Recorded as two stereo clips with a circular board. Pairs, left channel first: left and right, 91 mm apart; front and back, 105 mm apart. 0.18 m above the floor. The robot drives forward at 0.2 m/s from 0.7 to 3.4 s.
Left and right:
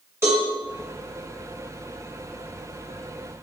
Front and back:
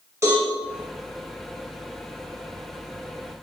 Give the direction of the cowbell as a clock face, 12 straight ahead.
4 o'clock.